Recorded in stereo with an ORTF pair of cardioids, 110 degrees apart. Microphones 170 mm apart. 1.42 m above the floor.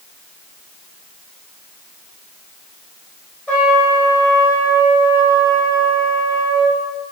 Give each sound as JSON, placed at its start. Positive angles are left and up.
{"t": 3.5, "sound": "a trumpet", "azimuth_deg": 10, "distance_m": 1.1}